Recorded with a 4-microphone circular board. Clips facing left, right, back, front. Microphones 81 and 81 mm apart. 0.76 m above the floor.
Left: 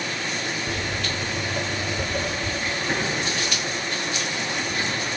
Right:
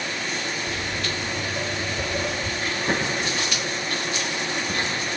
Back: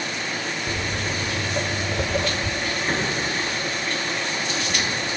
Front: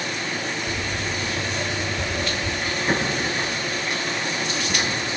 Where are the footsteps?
140° left, 1.4 m; by 2.5 s 170° right, 1.4 m.